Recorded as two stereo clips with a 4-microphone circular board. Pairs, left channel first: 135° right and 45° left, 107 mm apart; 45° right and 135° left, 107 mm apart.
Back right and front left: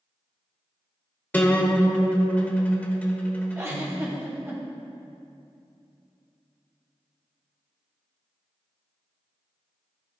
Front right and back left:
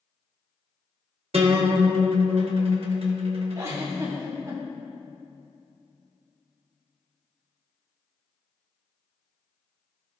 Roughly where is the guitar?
Behind left.